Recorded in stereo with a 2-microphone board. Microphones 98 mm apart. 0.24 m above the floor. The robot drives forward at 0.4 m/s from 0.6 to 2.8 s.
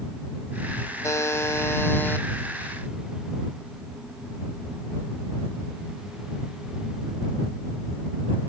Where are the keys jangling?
No keys jangling in this recording.